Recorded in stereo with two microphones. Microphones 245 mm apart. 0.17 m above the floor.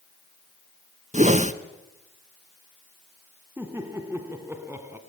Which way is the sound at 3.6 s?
10° right (ahead or behind).